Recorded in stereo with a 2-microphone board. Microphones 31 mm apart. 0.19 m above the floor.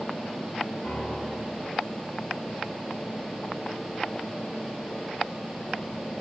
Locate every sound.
0.8 s a piano: 50° left (ahead or behind), 3.5 m